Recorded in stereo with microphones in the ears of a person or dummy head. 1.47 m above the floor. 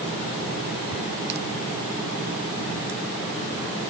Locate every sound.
Only background noise.